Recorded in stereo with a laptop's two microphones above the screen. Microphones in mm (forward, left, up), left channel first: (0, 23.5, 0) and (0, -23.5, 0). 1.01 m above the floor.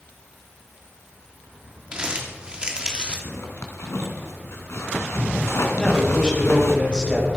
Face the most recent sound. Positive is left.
turn(degrees=15)  # may be behind; listen again after turning